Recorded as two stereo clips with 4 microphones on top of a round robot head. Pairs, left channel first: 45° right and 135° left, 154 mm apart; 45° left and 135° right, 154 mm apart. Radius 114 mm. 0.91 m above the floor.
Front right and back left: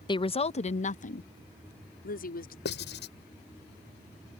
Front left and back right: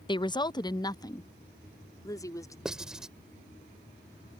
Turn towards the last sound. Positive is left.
turn(degrees=-45)